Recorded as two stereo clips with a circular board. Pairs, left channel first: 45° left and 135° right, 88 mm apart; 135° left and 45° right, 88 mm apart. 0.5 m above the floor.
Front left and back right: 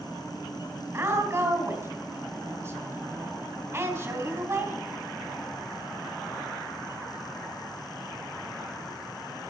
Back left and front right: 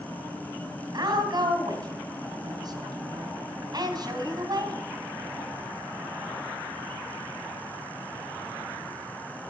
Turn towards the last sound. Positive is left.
turn(degrees=-80)